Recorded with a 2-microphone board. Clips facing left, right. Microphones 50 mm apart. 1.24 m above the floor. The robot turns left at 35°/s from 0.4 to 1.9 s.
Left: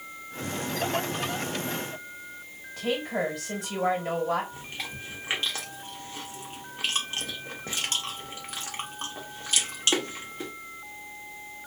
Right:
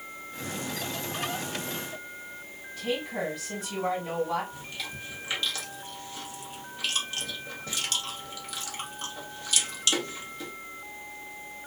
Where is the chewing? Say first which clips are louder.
Left 1 dB; 35° left (ahead or behind), 1.0 m.